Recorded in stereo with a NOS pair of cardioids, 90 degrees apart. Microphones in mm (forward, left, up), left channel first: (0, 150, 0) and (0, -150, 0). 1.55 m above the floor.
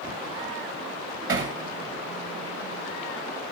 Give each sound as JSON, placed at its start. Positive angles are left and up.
{"t": 1.3, "sound": "hammering", "azimuth_deg": -40, "distance_m": 2.5}